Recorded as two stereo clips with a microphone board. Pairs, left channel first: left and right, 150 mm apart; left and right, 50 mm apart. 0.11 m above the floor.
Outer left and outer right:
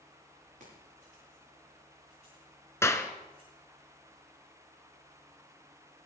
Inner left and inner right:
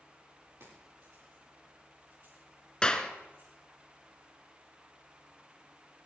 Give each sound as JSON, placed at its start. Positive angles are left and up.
{"t": 0.6, "sound": "keys jangling", "side_deg": -65, "distance_m": 9.5}
{"t": 2.8, "sound": "a clap", "side_deg": 20, "distance_m": 1.1}